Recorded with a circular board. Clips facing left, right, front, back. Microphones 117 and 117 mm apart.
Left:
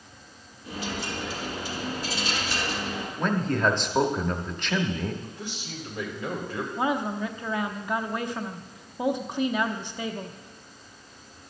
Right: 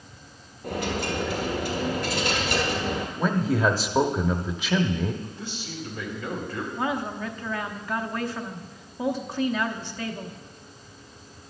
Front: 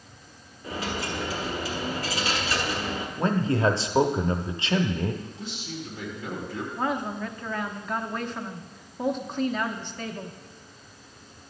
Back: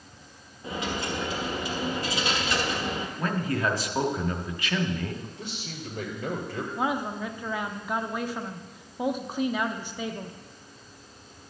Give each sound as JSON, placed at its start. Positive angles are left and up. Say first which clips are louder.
{"t": 0.6, "sound": "a dropped coin", "louder": "right 5 dB, even", "azimuth_deg": -115, "distance_m": 1.5}
{"t": 3.2, "sound": "a man speaking", "louder": "right 1 dB, front 5 dB", "azimuth_deg": -10, "distance_m": 0.7}
{"t": 5.2, "sound": "a man speaking", "louder": "right 1 dB, front 1 dB", "azimuth_deg": 160, "distance_m": 2.0}
{"t": 6.8, "sound": "a woman speaking", "louder": "left 2 dB, even", "azimuth_deg": 120, "distance_m": 0.6}